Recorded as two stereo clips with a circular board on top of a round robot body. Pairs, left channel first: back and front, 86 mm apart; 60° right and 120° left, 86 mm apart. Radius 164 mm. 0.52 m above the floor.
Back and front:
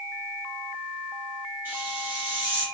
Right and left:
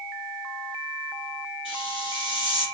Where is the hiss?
70° right, 7.5 m.